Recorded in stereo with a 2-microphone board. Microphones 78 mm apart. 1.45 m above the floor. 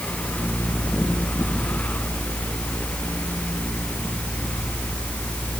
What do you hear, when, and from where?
Only background noise.